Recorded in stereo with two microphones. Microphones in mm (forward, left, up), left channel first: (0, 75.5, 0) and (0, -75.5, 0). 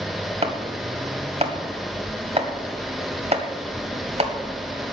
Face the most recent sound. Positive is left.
turn(degrees=-40)  # may be behind; listen again after turning